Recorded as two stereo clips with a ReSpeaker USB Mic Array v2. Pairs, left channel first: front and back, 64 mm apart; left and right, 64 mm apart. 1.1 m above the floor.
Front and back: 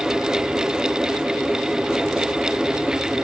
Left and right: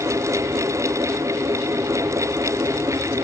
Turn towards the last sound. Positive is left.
No sound to turn to.